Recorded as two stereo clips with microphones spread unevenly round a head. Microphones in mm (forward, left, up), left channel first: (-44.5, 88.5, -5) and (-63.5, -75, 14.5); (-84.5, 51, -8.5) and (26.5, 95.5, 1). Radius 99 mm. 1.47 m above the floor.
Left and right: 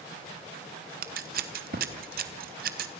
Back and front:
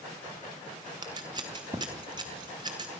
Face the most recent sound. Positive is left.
turn(degrees=-50)